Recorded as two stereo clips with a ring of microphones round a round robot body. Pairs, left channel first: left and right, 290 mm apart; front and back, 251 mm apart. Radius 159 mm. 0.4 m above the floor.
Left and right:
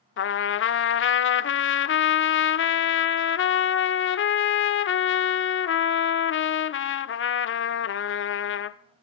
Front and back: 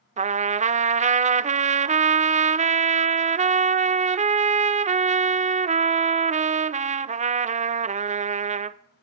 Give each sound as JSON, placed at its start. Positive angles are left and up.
{"t": 0.2, "sound": "a trumpet", "azimuth_deg": 125, "distance_m": 0.6}